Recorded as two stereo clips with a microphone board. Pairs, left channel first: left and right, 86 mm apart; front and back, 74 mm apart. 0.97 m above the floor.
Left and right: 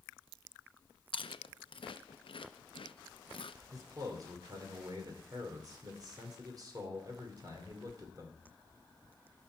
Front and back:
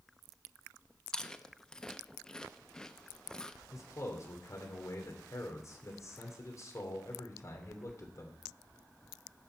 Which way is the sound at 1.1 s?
80° left.